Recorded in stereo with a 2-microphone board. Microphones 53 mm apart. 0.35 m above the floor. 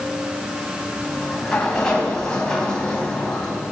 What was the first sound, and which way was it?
A sliding door, 15° left (ahead or behind).